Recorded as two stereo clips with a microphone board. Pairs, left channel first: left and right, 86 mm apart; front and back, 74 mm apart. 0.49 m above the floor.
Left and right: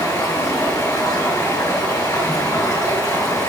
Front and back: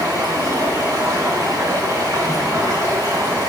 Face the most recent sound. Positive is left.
turn(degrees=140)